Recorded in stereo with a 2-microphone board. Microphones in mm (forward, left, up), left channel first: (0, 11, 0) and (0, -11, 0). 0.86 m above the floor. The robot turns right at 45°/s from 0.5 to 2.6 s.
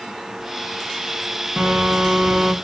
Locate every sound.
1.6 s a phone buzzing: 80° right, 1.0 m; by 2.5 s 35° right, 1.0 m